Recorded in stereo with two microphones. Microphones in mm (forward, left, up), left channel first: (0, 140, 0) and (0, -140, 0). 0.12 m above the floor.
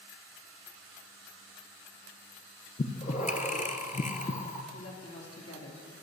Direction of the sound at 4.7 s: 55° left (ahead or behind).